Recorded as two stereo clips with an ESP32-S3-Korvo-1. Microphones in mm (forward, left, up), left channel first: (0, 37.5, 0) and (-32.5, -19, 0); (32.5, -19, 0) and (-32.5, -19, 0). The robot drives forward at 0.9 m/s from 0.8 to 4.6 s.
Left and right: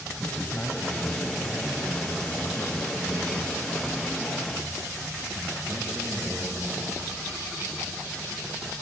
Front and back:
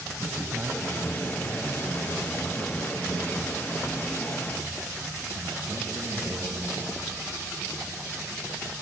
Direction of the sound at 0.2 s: 125° left.